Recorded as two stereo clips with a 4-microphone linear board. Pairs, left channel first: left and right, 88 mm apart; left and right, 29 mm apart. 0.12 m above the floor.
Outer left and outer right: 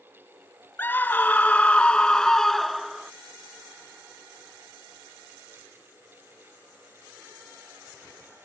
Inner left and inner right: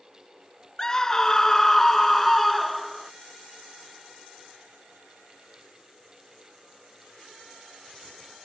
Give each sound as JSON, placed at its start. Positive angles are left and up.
{"t": 0.8, "sound": "a scream", "side_deg": 25}